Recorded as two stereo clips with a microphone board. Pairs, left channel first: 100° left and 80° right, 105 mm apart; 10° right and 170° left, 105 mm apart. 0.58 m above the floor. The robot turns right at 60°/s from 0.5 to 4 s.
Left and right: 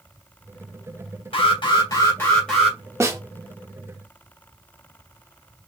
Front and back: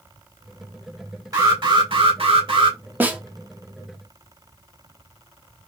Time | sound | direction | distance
1.3 | an alarm | 120° left | 2.5 m
3.0 | a snare drum | 125° right | 1.0 m